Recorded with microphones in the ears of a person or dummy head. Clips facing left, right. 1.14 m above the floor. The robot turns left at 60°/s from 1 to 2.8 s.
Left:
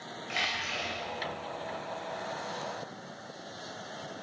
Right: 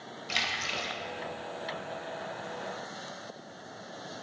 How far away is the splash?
About 1.4 m.